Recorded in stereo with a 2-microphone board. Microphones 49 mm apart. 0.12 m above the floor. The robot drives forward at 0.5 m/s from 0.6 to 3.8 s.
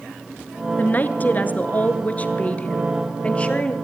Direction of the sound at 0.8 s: 35° left (ahead or behind).